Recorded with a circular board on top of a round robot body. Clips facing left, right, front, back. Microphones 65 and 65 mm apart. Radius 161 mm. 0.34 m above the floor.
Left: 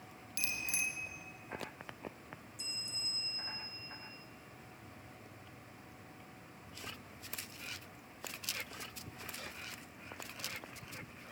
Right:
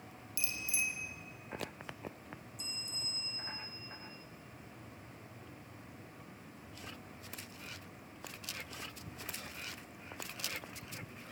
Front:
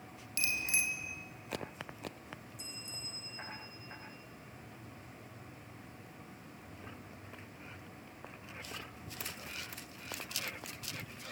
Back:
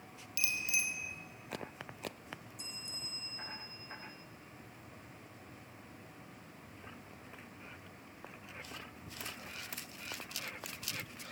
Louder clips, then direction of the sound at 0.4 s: Even, front 1 dB; 55° left.